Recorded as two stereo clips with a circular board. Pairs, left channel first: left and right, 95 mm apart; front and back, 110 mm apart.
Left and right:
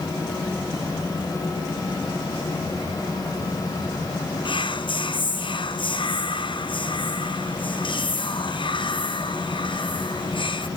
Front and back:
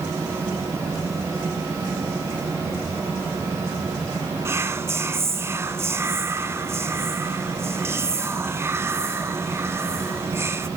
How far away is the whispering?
About 0.5 m.